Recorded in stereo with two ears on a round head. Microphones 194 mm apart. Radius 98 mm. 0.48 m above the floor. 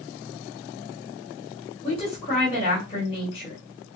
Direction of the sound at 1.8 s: 25° left (ahead or behind).